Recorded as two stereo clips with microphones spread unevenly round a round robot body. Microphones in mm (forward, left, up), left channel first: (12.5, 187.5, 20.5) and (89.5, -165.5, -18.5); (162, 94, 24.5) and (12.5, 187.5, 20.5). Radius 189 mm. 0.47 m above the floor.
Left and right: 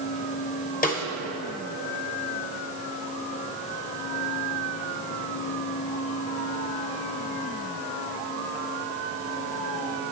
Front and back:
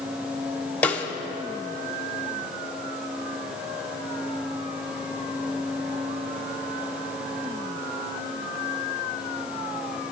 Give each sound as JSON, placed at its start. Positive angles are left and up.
{"t": 0.8, "sound": "a snare drum", "azimuth_deg": 45, "distance_m": 0.9}